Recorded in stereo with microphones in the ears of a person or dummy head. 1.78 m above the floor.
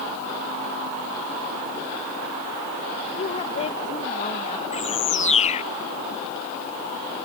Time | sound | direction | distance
3.1 | a woman speaking | 30° left (ahead or behind) | ?
4.7 | a bird | 35° left (ahead or behind) | ?